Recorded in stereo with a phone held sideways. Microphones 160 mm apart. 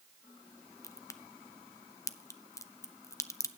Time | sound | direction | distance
0.8 | a crack | 20° left (ahead or behind) | 0.6 m